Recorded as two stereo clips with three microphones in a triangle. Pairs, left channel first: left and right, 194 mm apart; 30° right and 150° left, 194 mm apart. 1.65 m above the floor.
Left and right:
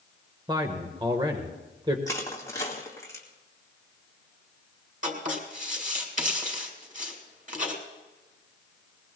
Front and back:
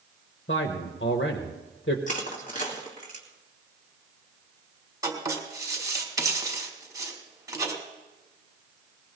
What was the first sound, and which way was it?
A man speaking, 25° right.